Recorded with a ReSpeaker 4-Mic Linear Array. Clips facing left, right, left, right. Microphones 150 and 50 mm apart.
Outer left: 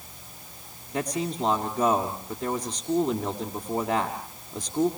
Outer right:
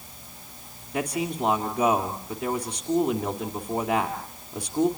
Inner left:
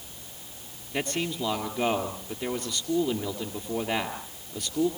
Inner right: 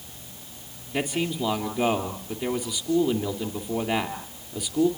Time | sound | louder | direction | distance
0.9 | a man speaking | outer right 1 dB, inner right 3 dB | centre (ahead or behind) | 2.5 m